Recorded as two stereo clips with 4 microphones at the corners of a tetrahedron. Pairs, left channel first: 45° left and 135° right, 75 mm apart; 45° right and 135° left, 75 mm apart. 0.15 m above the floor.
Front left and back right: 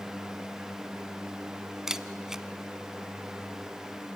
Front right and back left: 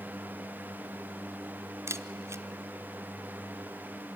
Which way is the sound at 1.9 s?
145° left.